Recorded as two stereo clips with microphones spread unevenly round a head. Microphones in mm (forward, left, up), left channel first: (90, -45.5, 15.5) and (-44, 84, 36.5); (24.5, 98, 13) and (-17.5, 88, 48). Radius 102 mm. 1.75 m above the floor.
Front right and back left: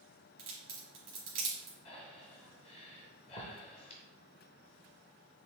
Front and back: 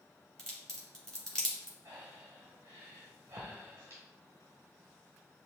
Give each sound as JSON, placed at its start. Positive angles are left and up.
{"t": 0.4, "sound": "a crack", "azimuth_deg": 130, "distance_m": 2.0}
{"t": 1.9, "sound": "breathing", "azimuth_deg": -110, "distance_m": 0.7}